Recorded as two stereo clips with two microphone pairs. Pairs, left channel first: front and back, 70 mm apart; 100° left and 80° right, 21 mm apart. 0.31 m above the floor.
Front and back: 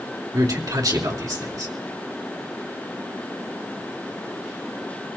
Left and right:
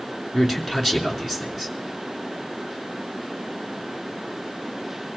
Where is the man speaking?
155° right, 3 m.